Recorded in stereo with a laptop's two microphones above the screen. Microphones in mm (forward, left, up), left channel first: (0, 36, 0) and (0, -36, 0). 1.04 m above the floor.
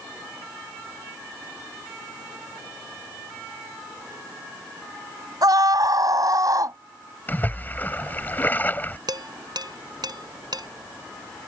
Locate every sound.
5.4 s a scream: 60° right (ahead or behind); by 6.8 s 50° right (ahead or behind)
7.3 s a splash: 25° left (ahead or behind)
9.1 s dishes clattering: 70° right (ahead or behind)